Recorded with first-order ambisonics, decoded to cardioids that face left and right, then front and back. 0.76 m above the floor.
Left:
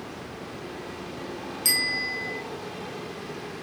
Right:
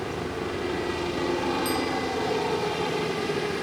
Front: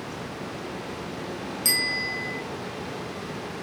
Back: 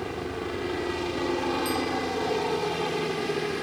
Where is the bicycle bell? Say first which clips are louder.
Left 2 dB, front 3 dB; 45° left.